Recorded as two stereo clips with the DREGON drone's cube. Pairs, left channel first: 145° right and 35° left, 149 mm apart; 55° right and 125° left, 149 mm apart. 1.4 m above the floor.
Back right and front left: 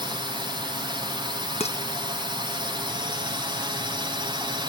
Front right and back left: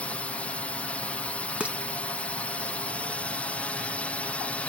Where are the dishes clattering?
160° right.